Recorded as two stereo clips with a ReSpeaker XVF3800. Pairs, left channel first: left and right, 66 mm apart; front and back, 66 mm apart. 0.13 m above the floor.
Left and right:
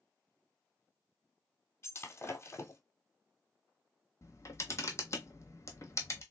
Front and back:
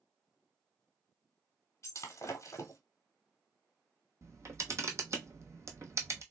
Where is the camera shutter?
135° left, 0.9 m.